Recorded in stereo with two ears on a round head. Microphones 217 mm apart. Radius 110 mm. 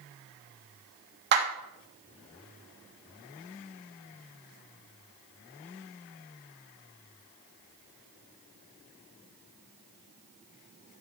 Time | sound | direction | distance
1.3 | a clap | 50° right (ahead or behind) | 3 m